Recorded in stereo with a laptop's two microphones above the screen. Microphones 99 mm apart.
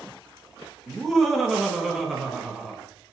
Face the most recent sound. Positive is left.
turn(degrees=0)  # may be behind; listen again after turning